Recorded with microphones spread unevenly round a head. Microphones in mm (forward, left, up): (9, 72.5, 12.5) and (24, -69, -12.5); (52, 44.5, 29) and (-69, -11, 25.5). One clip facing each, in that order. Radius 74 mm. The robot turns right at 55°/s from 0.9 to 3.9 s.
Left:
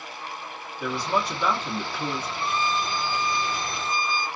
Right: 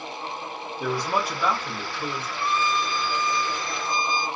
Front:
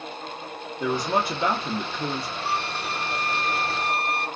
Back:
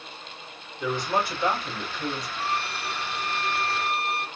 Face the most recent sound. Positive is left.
turn(degrees=85)